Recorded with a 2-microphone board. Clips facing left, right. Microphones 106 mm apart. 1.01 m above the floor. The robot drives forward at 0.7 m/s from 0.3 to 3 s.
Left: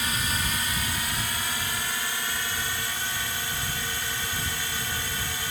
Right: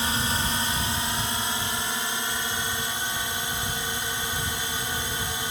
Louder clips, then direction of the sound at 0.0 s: Right 3 dB; 30° right (ahead or behind).